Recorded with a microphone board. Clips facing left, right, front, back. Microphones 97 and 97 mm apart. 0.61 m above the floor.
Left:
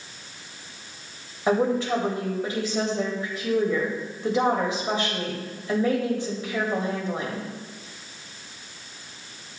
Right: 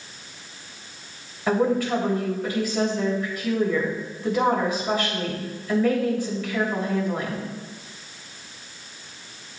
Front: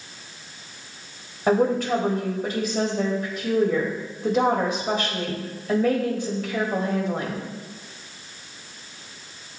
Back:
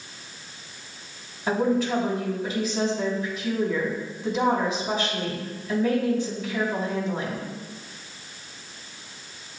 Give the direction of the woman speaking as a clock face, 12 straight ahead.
11 o'clock.